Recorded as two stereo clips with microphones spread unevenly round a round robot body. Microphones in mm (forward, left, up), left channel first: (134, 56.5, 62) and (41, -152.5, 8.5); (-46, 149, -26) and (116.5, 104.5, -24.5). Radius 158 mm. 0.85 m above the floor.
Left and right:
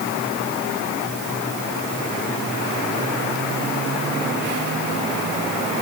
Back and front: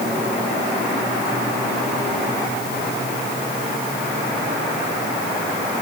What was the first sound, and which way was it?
Only background noise.